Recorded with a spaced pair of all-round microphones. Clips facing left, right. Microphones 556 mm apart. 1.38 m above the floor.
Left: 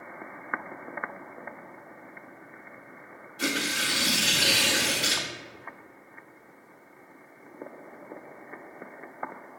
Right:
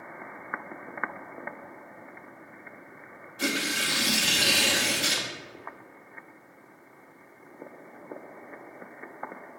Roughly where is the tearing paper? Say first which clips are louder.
Even; centre.